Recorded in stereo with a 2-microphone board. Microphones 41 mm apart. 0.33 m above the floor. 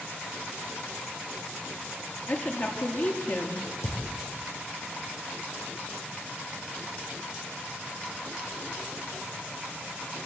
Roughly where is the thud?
Left.